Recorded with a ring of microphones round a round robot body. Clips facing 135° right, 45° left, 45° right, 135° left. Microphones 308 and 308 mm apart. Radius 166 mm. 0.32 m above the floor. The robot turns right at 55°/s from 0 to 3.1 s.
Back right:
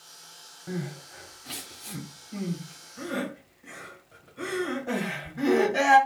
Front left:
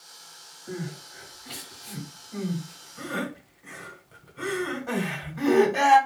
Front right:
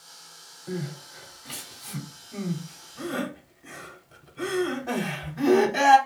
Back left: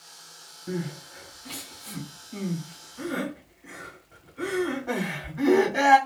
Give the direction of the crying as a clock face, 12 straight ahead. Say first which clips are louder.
Back right 1 dB, back left 1 dB; 5 o'clock.